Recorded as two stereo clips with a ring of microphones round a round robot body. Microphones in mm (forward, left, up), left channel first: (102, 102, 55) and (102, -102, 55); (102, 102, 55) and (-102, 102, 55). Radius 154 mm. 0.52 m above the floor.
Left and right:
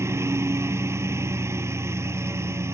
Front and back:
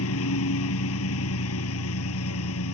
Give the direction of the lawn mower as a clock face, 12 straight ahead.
12 o'clock.